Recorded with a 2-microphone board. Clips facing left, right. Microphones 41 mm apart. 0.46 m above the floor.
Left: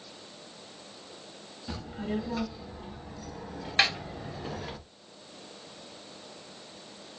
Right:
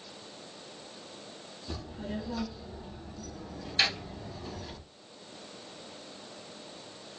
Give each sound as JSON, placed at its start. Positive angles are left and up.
{"t": 1.7, "sound": "a child speaking", "side_deg": 65, "distance_m": 3.0}
{"t": 3.8, "sound": "a snare drum", "side_deg": 60, "distance_m": 2.5}